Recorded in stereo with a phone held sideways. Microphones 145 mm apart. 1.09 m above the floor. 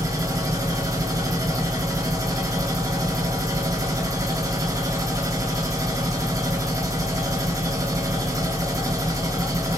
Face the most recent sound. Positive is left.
turn(degrees=-25)  # may be behind; listen again after turning